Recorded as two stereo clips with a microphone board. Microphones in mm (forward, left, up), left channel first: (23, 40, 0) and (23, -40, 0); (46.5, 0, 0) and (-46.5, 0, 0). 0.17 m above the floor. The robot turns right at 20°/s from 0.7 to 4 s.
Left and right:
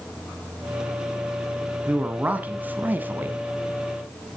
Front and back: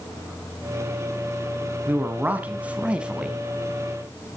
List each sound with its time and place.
1.9 s a man speaking: 140° right, 1.1 m; by 3.4 s 110° right, 1.1 m